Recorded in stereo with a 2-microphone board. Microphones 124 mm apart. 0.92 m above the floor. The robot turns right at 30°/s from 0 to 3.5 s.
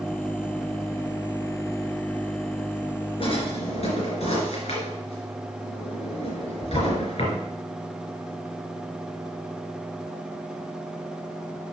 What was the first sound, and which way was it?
A drawer, 50° left (ahead or behind).